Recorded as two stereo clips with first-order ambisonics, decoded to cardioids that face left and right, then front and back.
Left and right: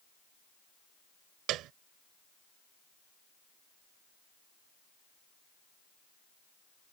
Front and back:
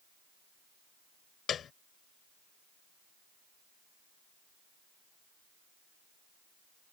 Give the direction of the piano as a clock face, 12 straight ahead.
2 o'clock.